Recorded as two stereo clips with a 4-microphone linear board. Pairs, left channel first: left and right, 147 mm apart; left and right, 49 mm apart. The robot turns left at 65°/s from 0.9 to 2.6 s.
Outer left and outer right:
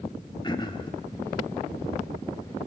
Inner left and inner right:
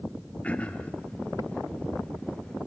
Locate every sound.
0.4 s throat clearing: 30° left (ahead or behind), 1.9 m